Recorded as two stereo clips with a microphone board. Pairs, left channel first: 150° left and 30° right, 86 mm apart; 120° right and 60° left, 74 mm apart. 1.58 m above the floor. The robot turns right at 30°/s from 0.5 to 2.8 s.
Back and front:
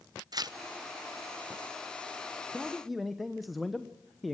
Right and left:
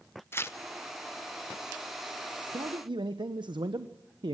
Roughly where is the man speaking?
Ahead left.